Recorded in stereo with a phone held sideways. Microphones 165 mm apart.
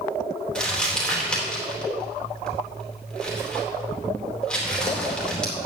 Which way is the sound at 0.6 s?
5° left (ahead or behind).